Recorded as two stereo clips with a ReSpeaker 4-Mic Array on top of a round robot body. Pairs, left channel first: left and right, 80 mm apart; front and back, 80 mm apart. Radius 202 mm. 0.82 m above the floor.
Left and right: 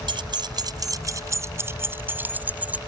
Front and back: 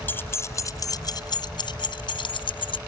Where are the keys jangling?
65° right; by 2.8 s 15° right.